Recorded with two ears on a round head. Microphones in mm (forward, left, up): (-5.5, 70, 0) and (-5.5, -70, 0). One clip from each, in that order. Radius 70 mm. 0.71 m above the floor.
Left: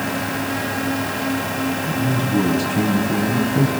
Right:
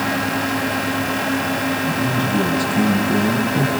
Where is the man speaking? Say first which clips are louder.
Right 2 dB; 15° left (ahead or behind), 4 m; by 3.7 s 20° left (ahead or behind), 5 m.